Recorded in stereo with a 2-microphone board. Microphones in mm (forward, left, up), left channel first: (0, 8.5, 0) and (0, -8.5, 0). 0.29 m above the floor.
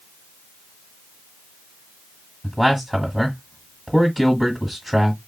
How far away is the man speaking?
About 1.4 m.